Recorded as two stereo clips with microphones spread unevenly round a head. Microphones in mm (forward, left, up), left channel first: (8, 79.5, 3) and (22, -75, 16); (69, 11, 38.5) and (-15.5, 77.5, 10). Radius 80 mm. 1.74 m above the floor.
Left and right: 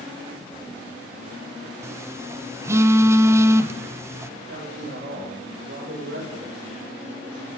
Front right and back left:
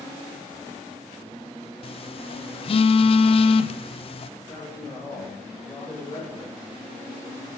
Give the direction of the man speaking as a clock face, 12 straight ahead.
4 o'clock.